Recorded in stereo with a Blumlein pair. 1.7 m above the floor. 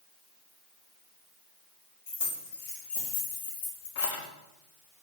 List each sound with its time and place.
2.1 s keys jangling: 55° left, 2.5 m